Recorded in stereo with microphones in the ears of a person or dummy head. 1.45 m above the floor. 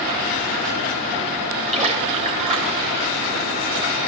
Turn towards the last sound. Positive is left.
turn(degrees=-30)  # may be behind; listen again after turning